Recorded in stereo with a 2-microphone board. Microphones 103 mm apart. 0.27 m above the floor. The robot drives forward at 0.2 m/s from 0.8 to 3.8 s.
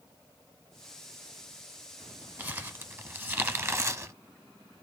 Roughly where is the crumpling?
Right.